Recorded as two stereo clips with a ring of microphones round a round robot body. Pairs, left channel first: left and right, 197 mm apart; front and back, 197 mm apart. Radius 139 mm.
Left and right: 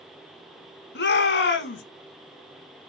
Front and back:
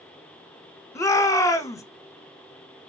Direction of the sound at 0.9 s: 75° left.